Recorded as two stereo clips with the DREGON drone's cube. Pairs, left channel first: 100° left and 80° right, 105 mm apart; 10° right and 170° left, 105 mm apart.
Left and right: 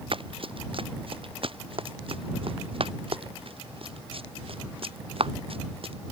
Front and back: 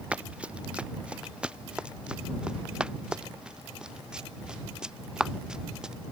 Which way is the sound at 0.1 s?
110° right.